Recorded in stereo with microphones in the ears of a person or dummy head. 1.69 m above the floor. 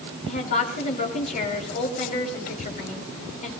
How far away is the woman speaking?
About 3.5 m.